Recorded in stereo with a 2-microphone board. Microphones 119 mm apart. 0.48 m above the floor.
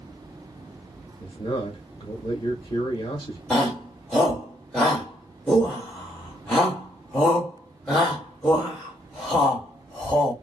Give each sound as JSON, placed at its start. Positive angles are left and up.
{"t": 1.2, "sound": "a man speaking", "side_deg": 40, "distance_m": 1.0}
{"t": 3.5, "sound": "a shout", "side_deg": 5, "distance_m": 1.9}